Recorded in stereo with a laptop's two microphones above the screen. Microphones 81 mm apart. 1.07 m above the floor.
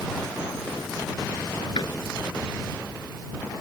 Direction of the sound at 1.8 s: 60° left (ahead or behind).